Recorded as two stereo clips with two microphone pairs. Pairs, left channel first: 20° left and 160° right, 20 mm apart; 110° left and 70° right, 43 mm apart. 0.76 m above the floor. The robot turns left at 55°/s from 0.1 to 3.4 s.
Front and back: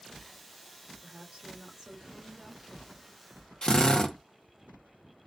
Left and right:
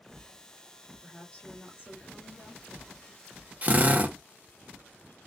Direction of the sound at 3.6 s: 20° right.